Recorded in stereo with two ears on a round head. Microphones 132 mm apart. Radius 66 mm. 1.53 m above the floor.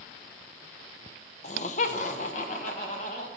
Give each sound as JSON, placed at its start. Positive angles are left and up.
{"t": 1.4, "sound": "laughter", "side_deg": 50, "distance_m": 0.6}